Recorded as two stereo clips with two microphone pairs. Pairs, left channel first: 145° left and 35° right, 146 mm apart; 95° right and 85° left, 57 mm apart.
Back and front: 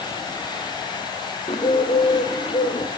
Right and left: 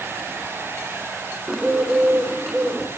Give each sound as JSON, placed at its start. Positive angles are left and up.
{"t": 1.5, "sound": "a bird", "azimuth_deg": 165, "distance_m": 1.6}